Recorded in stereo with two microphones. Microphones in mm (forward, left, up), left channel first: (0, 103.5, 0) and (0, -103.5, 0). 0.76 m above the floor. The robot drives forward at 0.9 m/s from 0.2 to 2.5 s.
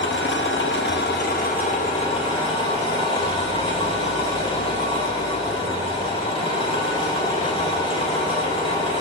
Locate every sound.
0.0 s an engine running: 70° left (ahead or behind), 1.0 m; by 9.0 s 25° left (ahead or behind), 2 m